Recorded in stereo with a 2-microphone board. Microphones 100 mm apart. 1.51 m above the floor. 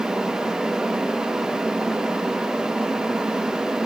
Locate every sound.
Only background noise.